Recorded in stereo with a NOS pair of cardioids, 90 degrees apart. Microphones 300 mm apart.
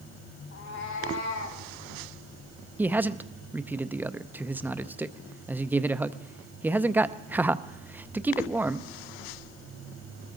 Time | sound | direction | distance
0.5 | a cat meowing | 60° left | 3 m
2.8 | a man speaking | 5° right | 0.6 m